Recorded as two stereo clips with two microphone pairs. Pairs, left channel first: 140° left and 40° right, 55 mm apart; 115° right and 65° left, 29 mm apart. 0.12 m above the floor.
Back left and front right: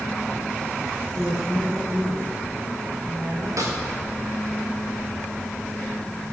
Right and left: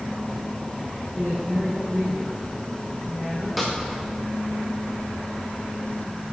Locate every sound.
1.1 s a woman speaking: 15° right, 5.5 m
3.6 s a snare drum: 25° right, 4 m